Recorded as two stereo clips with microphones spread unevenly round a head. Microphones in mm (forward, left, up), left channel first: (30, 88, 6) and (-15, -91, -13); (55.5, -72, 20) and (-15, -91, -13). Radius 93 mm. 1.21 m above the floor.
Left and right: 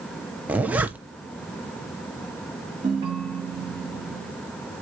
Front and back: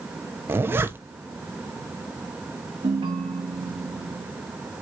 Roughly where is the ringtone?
Behind.